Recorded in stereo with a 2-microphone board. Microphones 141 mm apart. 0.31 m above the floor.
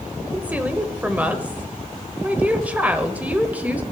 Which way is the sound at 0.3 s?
10° right (ahead or behind).